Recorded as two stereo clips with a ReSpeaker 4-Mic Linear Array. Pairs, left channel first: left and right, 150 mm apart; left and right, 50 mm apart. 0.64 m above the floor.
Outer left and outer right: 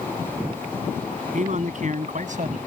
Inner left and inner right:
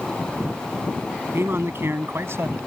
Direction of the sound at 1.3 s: 55° right (ahead or behind).